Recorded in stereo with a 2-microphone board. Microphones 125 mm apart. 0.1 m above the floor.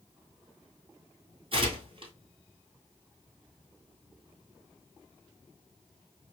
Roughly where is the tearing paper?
Right.